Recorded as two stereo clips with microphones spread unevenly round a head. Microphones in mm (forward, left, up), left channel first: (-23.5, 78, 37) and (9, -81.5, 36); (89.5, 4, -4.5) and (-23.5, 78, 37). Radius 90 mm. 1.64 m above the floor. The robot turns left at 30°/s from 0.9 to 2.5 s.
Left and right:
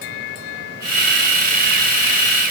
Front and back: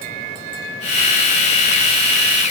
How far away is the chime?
No chime in this recording.